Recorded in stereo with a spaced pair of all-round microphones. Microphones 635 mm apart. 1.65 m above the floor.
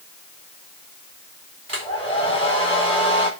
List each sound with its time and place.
1.7 s a hair dryer: 50° right (ahead or behind), 4 m